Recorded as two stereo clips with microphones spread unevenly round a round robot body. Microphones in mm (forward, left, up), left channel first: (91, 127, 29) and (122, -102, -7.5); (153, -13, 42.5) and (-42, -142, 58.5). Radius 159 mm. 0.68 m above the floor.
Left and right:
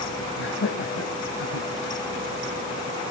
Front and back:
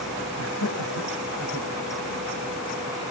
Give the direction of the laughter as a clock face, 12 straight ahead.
10 o'clock.